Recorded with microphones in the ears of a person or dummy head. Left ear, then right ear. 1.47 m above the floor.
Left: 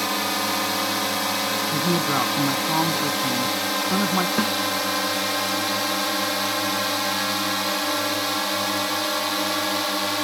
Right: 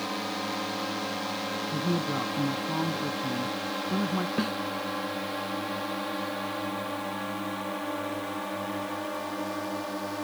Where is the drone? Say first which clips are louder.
Left 8 dB; 65° left (ahead or behind); by 10.2 s 60° left (ahead or behind).